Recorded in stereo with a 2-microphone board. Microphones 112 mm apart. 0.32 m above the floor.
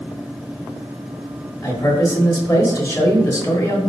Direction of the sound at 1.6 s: 25° left (ahead or behind).